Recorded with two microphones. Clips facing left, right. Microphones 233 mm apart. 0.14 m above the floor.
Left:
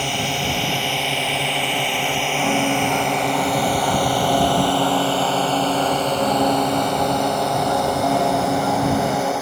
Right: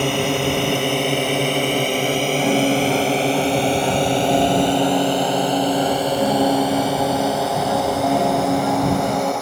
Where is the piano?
15° right (ahead or behind).